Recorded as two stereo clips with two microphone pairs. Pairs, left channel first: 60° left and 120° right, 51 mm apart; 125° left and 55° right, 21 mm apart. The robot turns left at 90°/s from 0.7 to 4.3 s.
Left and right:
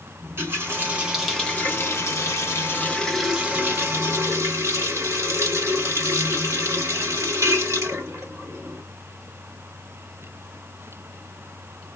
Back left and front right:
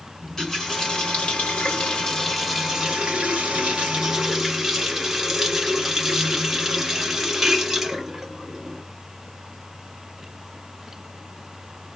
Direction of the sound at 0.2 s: 160° right.